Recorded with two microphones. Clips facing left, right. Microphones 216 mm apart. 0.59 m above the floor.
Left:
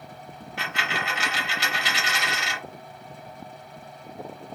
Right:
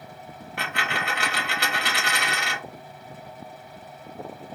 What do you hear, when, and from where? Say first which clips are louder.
0.6 s a dropped coin: right 1 dB; 60° right (ahead or behind), 0.8 m